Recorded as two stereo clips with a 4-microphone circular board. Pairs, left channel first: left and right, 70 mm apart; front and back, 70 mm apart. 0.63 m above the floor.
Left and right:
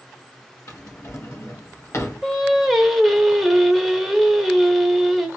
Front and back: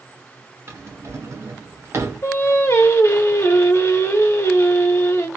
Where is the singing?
5° right, 0.8 m.